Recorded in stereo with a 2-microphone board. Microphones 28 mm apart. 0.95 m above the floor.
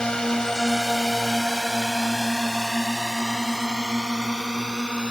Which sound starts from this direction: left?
A drone, at 0.0 s.